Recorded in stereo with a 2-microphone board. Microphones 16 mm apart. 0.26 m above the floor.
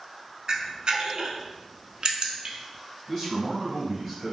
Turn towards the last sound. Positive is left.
turn(degrees=10)  # may be behind; listen again after turning